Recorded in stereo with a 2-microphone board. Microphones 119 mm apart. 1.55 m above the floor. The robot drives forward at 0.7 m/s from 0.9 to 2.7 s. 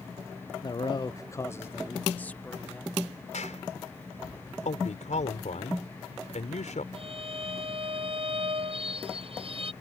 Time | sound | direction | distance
0.6 | a man speaking | 40° left (ahead or behind) | ?
3.3 | a clap | 85° left | ?
4.7 | a man speaking | 80° left | ?
6.9 | a violin | 50° right (ahead or behind) | ?